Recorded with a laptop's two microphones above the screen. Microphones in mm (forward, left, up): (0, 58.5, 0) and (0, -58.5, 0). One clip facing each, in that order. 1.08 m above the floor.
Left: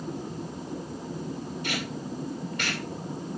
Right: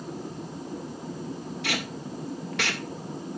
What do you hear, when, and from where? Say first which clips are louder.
1.6 s tape being pulled: right 1 dB; 80° right, 2 m